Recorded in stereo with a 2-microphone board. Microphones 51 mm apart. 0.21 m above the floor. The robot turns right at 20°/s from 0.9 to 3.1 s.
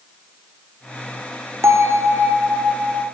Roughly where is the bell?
Right.